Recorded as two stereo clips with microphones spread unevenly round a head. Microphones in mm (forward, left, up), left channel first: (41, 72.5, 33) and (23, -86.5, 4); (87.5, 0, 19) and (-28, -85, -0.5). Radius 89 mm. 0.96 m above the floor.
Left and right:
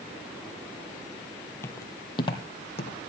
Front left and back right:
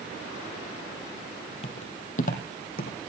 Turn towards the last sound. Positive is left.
turn(degrees=40)